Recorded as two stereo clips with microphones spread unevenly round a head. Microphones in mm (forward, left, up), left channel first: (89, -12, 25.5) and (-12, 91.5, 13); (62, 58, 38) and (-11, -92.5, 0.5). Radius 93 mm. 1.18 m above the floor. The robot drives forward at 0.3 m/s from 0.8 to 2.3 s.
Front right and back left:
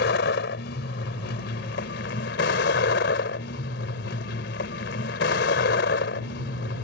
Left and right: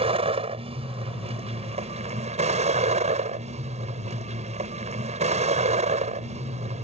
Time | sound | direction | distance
0.0 | a vehicle | 60° right | ?